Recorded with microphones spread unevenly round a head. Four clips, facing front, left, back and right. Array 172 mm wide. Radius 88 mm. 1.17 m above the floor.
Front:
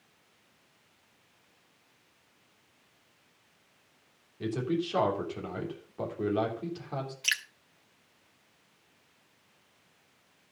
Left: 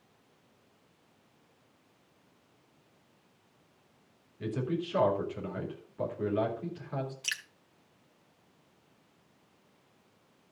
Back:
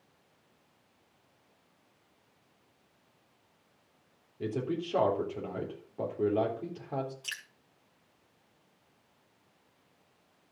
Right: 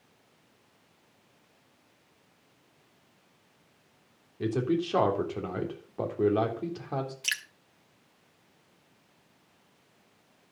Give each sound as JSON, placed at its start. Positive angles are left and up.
{"t": 4.4, "sound": "a man speaking", "azimuth_deg": -100, "distance_m": 3.5}
{"t": 7.2, "sound": "dripping", "azimuth_deg": -10, "distance_m": 1.7}